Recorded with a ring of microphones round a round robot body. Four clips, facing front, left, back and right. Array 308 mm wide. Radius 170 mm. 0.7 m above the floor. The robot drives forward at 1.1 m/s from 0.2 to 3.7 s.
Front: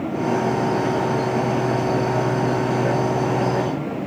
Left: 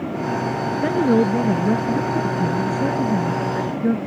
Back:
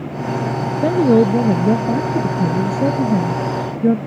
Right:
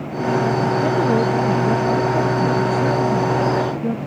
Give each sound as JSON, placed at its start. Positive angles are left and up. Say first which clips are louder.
{"t": 0.8, "sound": "a woman speaking", "louder": "left 4 dB, back 8 dB", "azimuth_deg": 160}